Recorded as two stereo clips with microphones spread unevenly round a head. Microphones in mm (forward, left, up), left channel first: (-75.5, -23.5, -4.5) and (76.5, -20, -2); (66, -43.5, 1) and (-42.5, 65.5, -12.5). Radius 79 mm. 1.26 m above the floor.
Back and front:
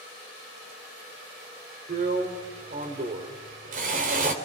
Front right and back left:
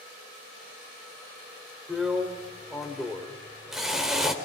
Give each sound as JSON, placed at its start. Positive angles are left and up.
{"t": 1.9, "sound": "a drill", "azimuth_deg": 45, "distance_m": 3.5}